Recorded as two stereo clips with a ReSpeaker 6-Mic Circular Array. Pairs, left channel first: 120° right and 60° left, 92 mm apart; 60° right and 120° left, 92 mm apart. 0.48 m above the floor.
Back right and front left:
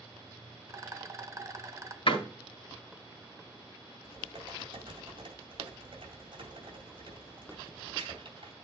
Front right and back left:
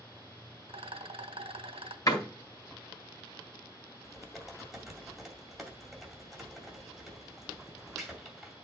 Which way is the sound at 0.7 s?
115° left.